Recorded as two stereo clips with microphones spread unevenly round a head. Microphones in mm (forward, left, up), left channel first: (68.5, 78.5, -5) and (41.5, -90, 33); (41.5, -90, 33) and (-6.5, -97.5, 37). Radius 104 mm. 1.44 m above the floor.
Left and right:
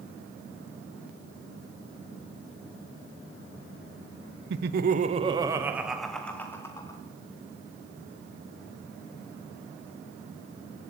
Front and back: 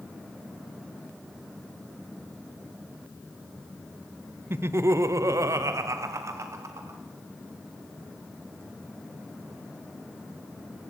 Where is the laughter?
135° right, 0.7 m; by 7.0 s 150° left, 1.4 m.